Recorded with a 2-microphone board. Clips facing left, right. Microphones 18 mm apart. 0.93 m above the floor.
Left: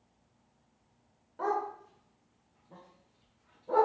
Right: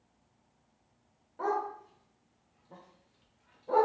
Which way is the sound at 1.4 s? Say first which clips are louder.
Even; 5° left (ahead or behind).